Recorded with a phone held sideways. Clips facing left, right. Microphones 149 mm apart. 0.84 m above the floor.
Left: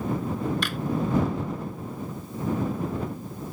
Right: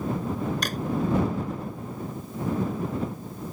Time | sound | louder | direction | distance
0.6 | a drawer | right 1 dB | 40° right (ahead or behind) | ?